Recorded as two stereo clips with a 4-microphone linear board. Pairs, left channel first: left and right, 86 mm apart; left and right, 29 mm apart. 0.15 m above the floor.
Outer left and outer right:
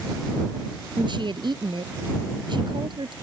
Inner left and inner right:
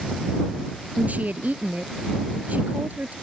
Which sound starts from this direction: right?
A woman speaking, at 1.0 s.